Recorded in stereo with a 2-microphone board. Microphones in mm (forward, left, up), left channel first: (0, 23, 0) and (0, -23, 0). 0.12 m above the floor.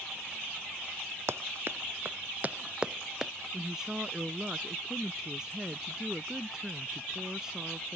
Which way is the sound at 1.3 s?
60° right (ahead or behind).